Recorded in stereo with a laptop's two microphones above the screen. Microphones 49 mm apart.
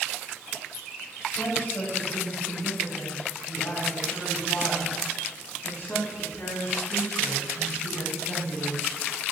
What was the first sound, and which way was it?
A woman speaking, 40° left (ahead or behind).